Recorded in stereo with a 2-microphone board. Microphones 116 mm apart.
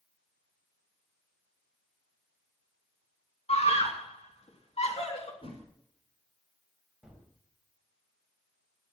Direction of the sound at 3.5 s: 60° left (ahead or behind).